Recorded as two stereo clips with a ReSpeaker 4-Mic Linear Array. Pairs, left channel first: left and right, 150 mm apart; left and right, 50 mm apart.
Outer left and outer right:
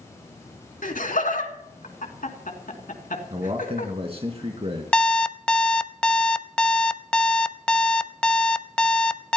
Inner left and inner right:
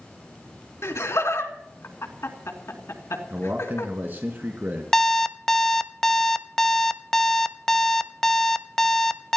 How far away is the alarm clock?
About 0.5 m.